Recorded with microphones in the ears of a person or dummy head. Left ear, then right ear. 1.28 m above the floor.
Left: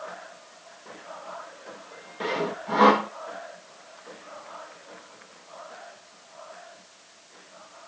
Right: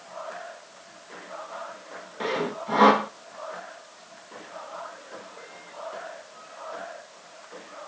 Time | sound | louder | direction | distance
2.2 | sawing | even | centre (ahead or behind) | 1.0 m